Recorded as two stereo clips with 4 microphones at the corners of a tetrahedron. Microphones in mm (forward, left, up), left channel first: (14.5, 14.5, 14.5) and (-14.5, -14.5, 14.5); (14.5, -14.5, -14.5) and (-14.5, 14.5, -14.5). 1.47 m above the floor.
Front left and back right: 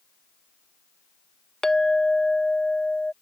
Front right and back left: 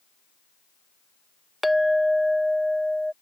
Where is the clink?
60° left.